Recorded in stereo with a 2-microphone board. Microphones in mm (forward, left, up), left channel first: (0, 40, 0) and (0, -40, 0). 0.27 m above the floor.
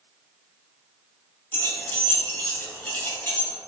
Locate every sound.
1.5 s keys jangling: 20° left (ahead or behind), 0.9 m